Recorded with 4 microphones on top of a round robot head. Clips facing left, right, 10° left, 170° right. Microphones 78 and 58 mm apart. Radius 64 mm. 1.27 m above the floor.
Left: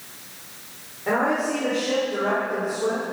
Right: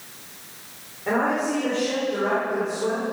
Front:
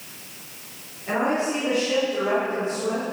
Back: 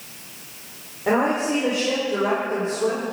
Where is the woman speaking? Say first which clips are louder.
Even, back 3 dB; 175° left, 4.5 m; by 3.1 s 170° left, 6 m.